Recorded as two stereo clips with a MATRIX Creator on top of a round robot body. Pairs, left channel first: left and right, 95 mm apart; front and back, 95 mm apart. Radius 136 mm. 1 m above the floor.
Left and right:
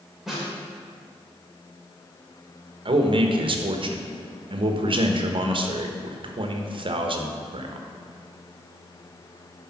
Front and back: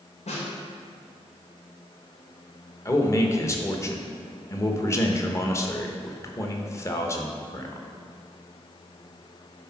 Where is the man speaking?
60° right, 1.1 m.